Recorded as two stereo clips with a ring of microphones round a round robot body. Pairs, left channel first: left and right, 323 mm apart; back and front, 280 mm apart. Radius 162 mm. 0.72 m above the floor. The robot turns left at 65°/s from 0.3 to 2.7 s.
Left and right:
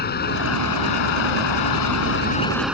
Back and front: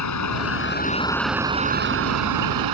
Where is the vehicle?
155° left; by 2.7 s 5° right.